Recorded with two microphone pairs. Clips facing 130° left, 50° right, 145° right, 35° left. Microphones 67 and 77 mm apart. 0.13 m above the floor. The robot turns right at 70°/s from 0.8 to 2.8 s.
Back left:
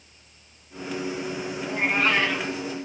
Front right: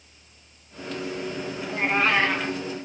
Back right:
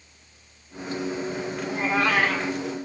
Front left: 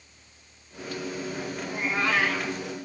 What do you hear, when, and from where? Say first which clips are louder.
1.6 s a cat meowing: front right 1 dB, back right 4 dB; 150° right, 1.8 m; by 2.6 s 85° right, 1.8 m